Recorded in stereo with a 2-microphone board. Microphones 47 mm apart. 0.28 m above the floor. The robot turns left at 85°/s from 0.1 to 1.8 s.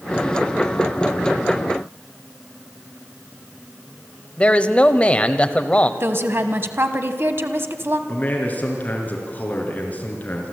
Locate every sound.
4.4 s a man speaking: 25° left (ahead or behind), 1.0 m
6.0 s a woman speaking: 50° right (ahead or behind), 1.6 m
8.1 s a man speaking: 30° left (ahead or behind), 4 m